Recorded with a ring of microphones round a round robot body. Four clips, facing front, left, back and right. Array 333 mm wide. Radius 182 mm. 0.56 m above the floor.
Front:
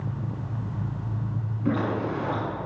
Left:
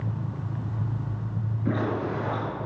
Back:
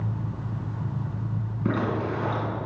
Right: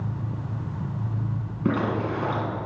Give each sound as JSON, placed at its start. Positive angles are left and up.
{"t": 1.6, "sound": "a zipper", "azimuth_deg": -115, "distance_m": 7.0}